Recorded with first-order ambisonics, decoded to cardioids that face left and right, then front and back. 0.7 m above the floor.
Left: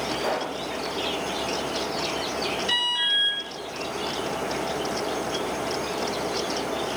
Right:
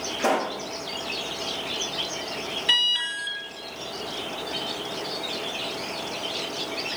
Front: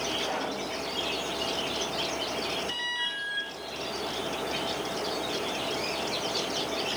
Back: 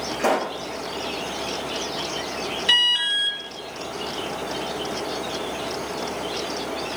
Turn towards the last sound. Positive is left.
turn(degrees=-165)